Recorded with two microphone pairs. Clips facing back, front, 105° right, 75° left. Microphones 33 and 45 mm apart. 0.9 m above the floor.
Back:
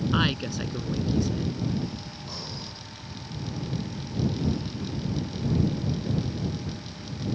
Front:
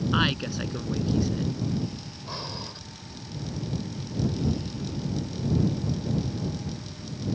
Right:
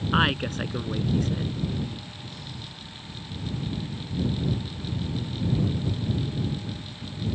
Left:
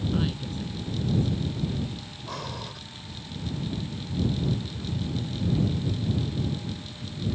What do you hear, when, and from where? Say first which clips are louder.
0.1 s a woman speaking: front 1 dB, right 6 dB; 80° right
2.3 s breathing: front 5 dB, left 5 dB; 60° left